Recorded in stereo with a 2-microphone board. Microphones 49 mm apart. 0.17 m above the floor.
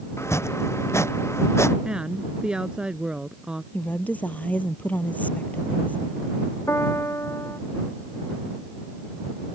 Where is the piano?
70° left (ahead or behind).